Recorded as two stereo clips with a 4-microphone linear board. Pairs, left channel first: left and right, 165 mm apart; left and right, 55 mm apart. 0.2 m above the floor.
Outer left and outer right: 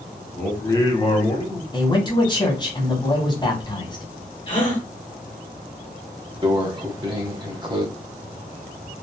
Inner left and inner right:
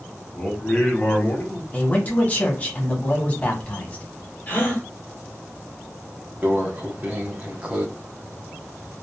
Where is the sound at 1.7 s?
25° left (ahead or behind), 1.0 m.